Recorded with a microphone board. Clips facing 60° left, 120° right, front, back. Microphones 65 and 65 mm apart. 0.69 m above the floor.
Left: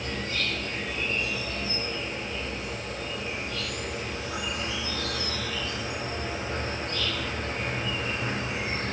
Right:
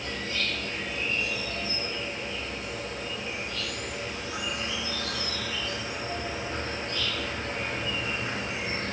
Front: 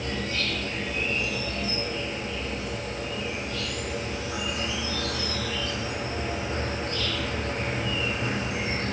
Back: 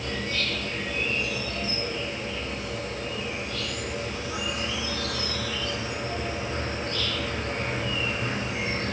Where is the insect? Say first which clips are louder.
Left 1 dB, even; 65° left, 3 m.